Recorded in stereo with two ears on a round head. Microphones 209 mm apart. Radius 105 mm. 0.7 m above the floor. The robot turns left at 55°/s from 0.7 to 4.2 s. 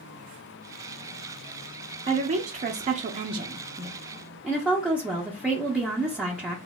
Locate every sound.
2.1 s a woman speaking: 55° right, 0.5 m; by 6.6 s 175° right, 0.5 m